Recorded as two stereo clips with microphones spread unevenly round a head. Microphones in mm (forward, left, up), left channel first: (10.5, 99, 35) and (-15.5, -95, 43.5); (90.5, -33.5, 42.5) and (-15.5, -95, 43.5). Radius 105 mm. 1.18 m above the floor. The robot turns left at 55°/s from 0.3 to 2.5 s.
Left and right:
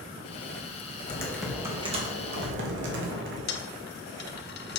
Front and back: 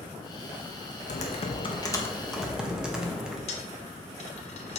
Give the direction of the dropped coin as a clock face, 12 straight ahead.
10 o'clock.